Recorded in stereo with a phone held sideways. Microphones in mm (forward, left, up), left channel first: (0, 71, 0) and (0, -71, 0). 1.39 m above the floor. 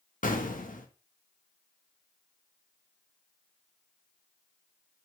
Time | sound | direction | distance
0.2 | an explosion | 70° left (ahead or behind) | 1.3 m